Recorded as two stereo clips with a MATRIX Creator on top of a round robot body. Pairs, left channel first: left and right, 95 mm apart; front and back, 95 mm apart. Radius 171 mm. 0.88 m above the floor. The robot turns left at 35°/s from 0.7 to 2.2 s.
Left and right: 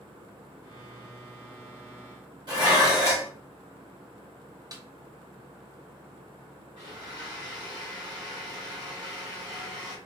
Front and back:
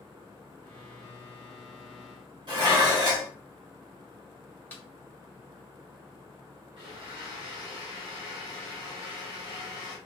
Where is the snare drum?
65° right, 1.2 m.